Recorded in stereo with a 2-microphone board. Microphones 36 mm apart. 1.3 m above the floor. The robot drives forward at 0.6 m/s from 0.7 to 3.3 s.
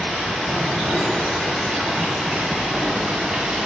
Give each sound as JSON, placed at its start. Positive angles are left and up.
{"t": 0.0, "sound": "running water", "side_deg": -10, "distance_m": 3.0}